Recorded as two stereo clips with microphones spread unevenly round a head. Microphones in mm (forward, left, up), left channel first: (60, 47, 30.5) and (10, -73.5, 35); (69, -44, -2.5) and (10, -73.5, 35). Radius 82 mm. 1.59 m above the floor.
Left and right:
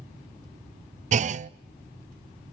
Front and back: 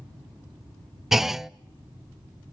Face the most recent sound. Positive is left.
turn(degrees=-75)